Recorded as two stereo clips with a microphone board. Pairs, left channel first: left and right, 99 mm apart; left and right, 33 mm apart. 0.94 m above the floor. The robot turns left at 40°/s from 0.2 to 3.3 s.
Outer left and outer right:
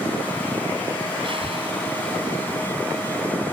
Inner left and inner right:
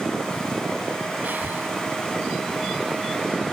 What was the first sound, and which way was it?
Breathing, 60° right (ahead or behind).